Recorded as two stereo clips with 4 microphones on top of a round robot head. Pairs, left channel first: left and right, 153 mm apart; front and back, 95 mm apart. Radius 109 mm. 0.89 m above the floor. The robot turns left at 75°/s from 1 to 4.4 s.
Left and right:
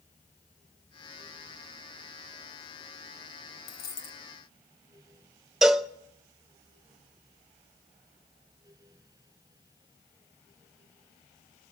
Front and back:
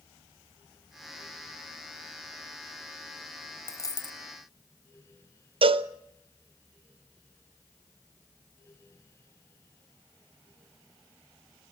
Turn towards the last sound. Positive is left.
turn(degrees=180)